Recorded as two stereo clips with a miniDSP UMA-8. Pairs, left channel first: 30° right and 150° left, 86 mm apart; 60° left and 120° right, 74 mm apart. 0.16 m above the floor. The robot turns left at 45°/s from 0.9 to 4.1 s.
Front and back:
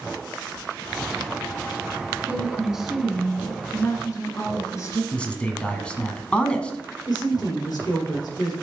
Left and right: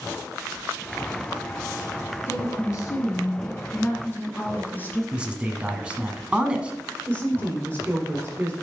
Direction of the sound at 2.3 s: 90° left.